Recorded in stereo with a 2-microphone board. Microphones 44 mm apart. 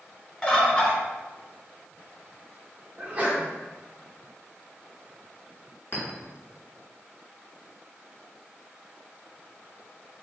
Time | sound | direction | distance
0.4 | a bird | 20° left (ahead or behind) | 0.9 m
3.0 | a sneeze | 25° right (ahead or behind) | 1.3 m
5.9 | a clink | 60° left (ahead or behind) | 1.5 m